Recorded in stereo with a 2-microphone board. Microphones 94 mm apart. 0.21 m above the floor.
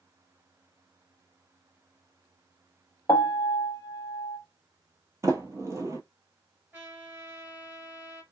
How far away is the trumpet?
About 2.5 m.